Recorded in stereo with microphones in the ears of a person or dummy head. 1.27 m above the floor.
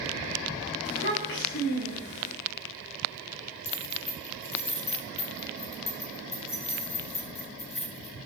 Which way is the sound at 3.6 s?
30° left (ahead or behind).